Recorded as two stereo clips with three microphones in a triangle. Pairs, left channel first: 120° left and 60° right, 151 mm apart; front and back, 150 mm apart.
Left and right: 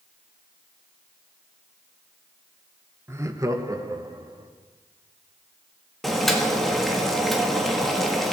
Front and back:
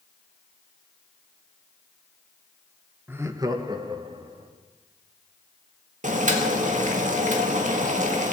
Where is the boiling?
150° right, 1.8 m.